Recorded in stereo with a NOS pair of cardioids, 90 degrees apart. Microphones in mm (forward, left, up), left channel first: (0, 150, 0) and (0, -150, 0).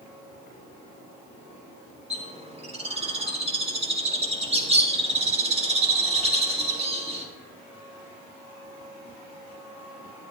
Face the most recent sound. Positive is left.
turn(degrees=-20)